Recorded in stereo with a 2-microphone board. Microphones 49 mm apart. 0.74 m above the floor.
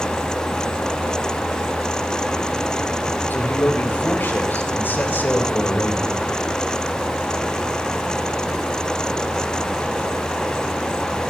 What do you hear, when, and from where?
3.3 s a man speaking: 45° left (ahead or behind), 4 m